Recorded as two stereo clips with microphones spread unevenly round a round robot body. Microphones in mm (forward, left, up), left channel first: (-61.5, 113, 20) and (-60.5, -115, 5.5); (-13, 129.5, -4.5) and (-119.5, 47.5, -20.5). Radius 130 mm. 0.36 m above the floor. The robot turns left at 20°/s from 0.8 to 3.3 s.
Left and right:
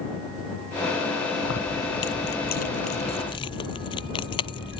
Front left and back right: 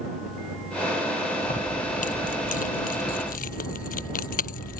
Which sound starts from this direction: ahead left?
Keys jangling, at 1.4 s.